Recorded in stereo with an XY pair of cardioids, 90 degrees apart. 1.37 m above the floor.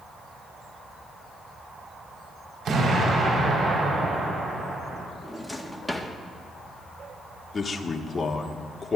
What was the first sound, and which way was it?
An explosion, 65° right.